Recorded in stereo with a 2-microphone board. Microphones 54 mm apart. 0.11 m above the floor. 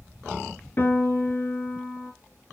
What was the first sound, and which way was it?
A piano, 40° left (ahead or behind).